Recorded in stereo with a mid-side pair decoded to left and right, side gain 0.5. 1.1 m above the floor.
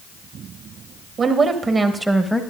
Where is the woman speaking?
50° right, 1.6 m; by 2.4 s 5° left, 1.1 m.